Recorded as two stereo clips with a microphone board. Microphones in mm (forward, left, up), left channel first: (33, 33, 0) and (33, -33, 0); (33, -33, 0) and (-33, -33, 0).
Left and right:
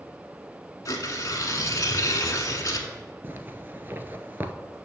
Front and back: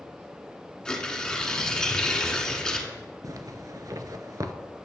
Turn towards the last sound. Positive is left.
turn(degrees=-145)